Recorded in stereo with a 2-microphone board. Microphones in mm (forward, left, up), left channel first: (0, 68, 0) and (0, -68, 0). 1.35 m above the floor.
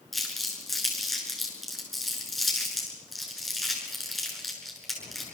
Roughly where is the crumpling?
Centre.